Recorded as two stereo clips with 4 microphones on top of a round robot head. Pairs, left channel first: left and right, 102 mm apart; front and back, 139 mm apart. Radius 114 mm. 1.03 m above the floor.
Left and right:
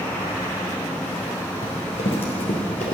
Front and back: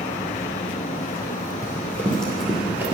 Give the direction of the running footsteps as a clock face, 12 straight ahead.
10 o'clock.